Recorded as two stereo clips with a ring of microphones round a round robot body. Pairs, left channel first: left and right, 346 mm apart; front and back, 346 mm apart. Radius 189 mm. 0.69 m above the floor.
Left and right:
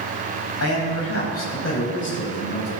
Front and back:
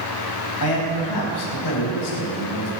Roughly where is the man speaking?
Ahead left.